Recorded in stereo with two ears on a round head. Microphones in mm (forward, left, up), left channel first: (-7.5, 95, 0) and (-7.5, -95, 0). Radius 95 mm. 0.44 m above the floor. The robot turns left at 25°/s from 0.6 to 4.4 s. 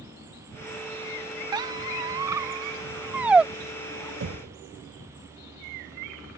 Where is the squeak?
20° right (ahead or behind); by 4.1 s centre (ahead or behind).